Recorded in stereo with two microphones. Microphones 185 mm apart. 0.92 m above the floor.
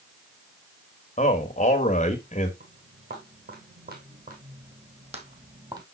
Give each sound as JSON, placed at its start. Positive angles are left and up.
{"t": 1.2, "sound": "a man speaking", "side_deg": 45, "distance_m": 1.6}
{"t": 2.6, "sound": "footsteps", "side_deg": -65, "distance_m": 3.0}